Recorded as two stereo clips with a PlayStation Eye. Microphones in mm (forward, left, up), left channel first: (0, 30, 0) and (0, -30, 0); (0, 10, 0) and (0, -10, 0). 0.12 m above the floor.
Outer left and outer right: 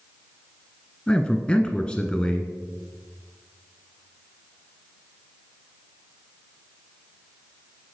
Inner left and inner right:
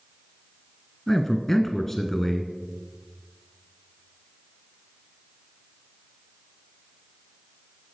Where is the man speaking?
10° left (ahead or behind), 1.4 m.